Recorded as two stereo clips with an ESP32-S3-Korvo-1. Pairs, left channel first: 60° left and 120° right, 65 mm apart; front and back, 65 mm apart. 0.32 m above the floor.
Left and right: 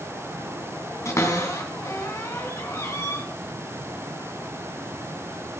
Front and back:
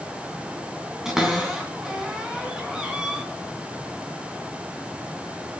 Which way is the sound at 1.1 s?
100° left.